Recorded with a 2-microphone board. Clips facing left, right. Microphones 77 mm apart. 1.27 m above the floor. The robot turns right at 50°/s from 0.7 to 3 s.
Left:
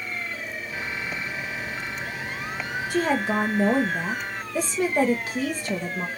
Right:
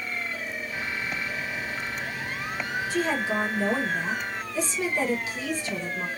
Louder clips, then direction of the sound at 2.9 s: Left 4 dB; 60° left (ahead or behind).